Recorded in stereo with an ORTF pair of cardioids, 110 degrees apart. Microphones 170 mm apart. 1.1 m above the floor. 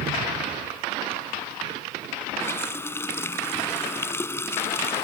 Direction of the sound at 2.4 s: 15° left.